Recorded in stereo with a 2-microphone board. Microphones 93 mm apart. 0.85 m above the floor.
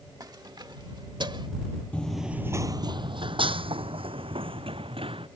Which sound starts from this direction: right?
Keys jangling, at 0.2 s.